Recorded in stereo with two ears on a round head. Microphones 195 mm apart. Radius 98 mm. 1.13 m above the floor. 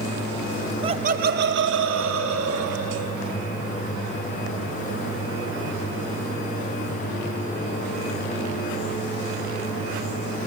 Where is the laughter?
25° right (ahead or behind), 0.7 m; by 3.2 s 75° right (ahead or behind), 2.5 m.